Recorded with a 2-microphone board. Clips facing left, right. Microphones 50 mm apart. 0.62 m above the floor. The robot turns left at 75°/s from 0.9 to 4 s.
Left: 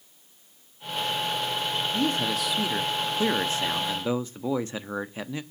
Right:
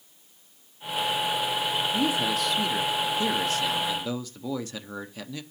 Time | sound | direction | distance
1.9 | a man speaking | 15° right (ahead or behind) | 0.7 m